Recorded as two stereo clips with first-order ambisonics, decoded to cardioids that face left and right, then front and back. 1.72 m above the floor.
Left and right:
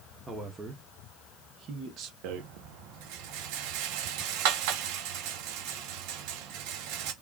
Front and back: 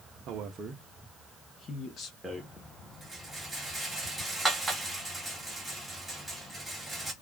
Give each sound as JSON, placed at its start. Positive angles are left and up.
{"t": 0.3, "sound": "a man speaking", "azimuth_deg": -165, "distance_m": 0.7}
{"t": 2.2, "sound": "a rattle", "azimuth_deg": -90, "distance_m": 0.9}